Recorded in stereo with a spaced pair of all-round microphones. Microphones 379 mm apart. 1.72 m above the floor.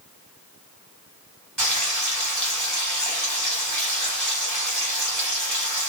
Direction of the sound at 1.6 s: 60° right (ahead or behind).